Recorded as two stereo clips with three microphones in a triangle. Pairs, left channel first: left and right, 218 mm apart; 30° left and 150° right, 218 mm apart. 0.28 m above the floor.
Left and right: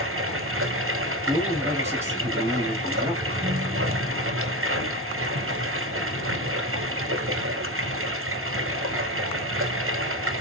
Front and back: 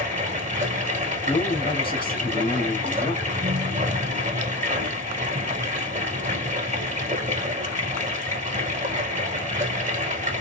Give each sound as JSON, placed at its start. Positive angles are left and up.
{"t": 0.0, "sound": "running water", "azimuth_deg": -90, "distance_m": 1.7}
{"t": 1.3, "sound": "a man speaking", "azimuth_deg": -15, "distance_m": 1.4}
{"t": 3.2, "sound": "a ringtone", "azimuth_deg": -140, "distance_m": 0.6}